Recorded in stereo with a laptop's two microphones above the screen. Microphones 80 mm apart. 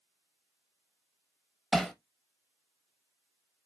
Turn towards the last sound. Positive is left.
turn(degrees=0)  # may be behind; listen again after turning